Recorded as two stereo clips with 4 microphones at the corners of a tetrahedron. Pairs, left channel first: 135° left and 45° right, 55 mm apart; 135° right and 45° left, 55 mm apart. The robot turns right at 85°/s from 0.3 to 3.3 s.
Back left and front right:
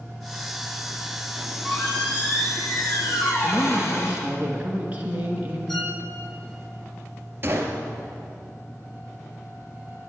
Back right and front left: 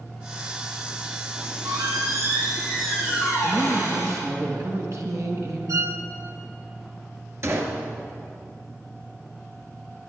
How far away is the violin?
About 1.4 m.